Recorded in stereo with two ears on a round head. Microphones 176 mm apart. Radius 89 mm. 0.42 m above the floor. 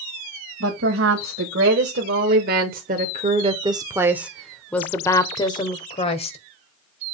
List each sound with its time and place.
0.6 s a woman speaking: 65° right (ahead or behind), 1.9 m; by 6.4 s 35° left (ahead or behind), 1.6 m